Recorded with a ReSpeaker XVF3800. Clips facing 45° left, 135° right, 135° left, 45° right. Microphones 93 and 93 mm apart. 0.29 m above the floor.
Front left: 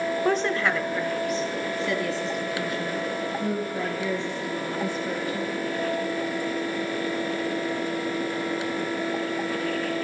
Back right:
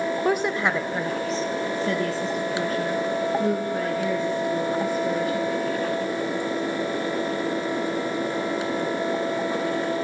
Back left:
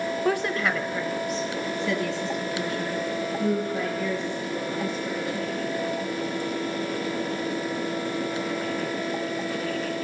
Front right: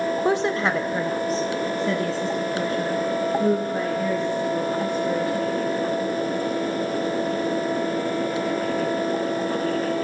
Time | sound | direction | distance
0.2 | a woman speaking | 60° right | 0.9 m